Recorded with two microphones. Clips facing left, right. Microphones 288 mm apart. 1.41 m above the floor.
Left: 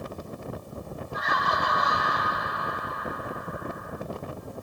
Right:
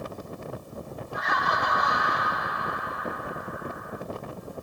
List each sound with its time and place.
1.1 s laughter: 45° left (ahead or behind), 3.5 m